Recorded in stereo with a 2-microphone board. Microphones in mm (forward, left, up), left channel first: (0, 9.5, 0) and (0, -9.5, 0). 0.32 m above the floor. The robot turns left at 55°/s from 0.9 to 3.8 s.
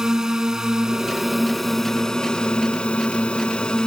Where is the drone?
155° right; by 3.9 s 45° left.